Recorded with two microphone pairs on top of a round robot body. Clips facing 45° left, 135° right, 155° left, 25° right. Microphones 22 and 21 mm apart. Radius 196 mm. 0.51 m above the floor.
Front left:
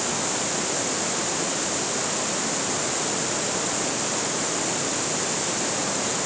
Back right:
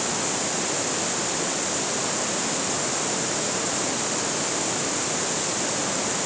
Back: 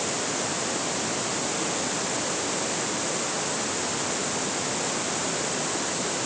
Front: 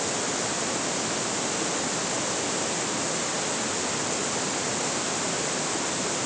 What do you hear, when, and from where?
Only background noise.